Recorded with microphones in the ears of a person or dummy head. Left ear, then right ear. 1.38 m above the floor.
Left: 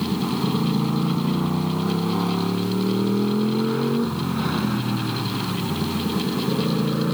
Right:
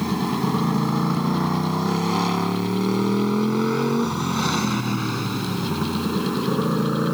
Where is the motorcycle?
55° right (ahead or behind); by 7.2 s 80° right.